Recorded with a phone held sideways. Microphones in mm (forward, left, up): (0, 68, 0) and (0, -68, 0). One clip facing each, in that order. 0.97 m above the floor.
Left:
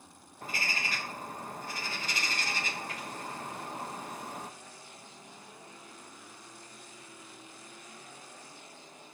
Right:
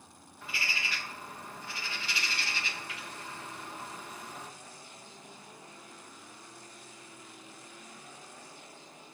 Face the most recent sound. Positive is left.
turn(degrees=45)  # may be behind; listen again after turning